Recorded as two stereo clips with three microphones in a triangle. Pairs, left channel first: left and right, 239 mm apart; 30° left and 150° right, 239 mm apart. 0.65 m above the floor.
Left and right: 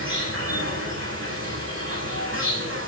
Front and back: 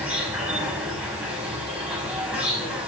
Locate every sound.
0.0 s an insect: 65° right, 8 m